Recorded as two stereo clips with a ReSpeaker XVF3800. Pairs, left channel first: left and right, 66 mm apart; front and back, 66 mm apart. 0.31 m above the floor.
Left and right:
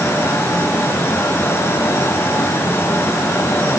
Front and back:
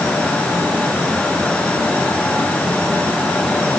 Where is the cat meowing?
I don't hear a cat meowing.